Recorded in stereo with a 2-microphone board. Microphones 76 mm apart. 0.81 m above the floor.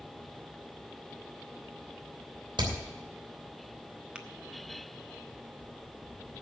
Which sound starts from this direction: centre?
Tapping, at 4.2 s.